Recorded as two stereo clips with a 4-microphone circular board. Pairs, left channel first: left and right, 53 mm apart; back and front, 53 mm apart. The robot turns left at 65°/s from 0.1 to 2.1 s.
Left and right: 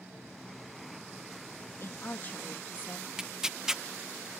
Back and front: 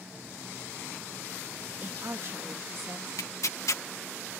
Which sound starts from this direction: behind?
Tearing paper, at 3.2 s.